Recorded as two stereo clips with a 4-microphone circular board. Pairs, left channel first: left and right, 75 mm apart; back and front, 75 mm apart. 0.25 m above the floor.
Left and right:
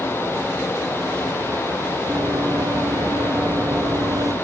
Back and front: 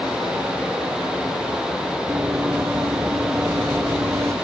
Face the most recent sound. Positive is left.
turn(degrees=-50)